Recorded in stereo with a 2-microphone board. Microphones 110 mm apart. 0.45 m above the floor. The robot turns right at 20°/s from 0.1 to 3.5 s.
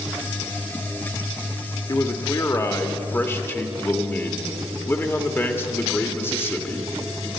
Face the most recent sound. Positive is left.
turn(degrees=145)